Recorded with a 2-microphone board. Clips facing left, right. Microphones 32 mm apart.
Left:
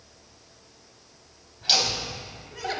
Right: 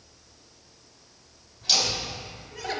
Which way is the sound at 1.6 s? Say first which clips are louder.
Left 1 dB; 30° left (ahead or behind).